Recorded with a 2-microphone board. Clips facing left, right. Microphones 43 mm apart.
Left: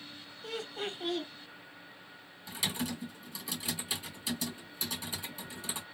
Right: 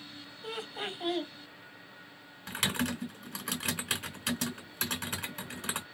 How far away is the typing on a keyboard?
About 1.2 m.